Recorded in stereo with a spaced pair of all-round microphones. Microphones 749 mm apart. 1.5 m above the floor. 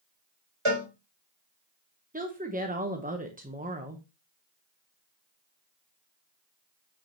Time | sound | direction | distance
0.7 | a cowbell | 40° right (ahead or behind) | 4 m
2.1 | a woman speaking | 10° right (ahead or behind) | 0.9 m